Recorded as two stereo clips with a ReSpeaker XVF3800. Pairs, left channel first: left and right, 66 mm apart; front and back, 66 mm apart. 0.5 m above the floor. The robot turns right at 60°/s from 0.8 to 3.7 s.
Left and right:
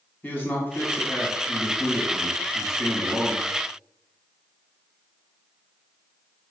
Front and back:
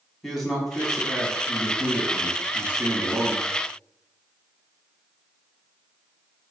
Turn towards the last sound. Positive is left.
turn(degrees=-105)